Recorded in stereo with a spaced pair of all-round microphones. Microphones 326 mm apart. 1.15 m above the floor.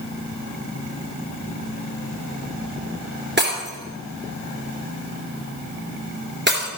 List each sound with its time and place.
3.4 s breaking glass: 35° right (ahead or behind), 3 m